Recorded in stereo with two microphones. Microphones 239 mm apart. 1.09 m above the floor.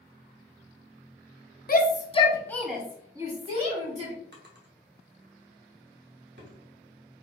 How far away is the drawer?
About 1.0 m.